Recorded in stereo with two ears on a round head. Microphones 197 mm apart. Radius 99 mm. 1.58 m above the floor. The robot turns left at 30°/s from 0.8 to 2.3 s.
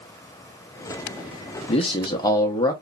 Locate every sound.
1.7 s a man speaking: 30° left (ahead or behind), 0.7 m; by 2.7 s 15° left (ahead or behind), 0.7 m